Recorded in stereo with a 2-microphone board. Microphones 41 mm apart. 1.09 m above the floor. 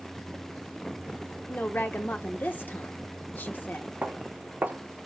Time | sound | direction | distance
1.5 | a woman speaking | 55° left (ahead or behind) | 1.0 m
4.0 | footsteps | 45° right (ahead or behind) | 3.5 m